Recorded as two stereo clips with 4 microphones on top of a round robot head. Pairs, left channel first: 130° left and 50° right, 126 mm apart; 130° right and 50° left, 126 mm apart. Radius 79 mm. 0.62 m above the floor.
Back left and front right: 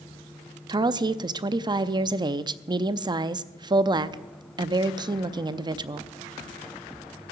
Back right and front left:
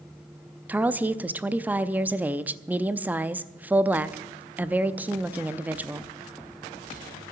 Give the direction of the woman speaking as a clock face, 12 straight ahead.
1 o'clock.